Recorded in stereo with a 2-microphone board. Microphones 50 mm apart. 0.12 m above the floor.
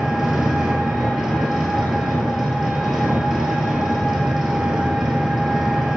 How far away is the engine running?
About 0.8 m.